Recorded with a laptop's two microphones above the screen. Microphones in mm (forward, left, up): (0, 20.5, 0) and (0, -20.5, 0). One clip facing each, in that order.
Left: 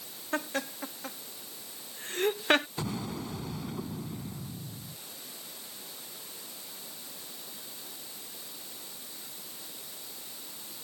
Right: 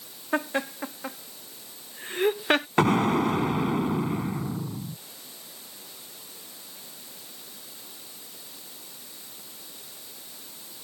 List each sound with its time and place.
0.3 s laughter: 25° right (ahead or behind); by 2.7 s 5° left (ahead or behind)
2.8 s an explosion: 75° right (ahead or behind)